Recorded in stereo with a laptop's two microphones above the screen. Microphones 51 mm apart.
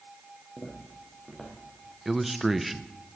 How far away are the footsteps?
About 4 m.